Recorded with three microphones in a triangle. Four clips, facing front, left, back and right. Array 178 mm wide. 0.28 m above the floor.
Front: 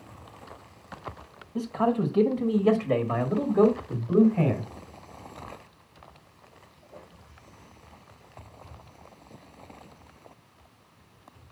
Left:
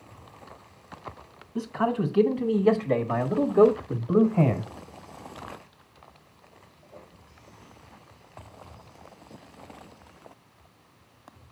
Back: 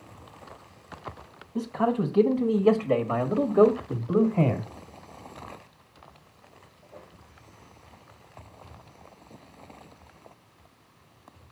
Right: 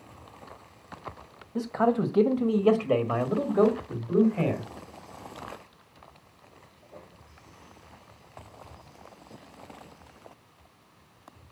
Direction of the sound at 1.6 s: 85° right.